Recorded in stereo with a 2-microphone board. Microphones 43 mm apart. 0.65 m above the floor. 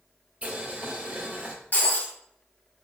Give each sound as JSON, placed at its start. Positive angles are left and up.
{"t": 0.4, "sound": "boiling", "side_deg": -30, "distance_m": 1.8}
{"t": 1.7, "sound": "breaking glass", "side_deg": 45, "distance_m": 1.7}